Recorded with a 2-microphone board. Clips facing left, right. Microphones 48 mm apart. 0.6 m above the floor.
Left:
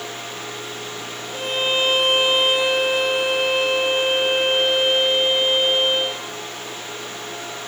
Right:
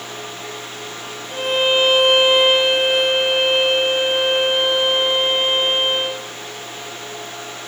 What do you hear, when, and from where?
1.3 s a violin: 40° right (ahead or behind), 3.5 m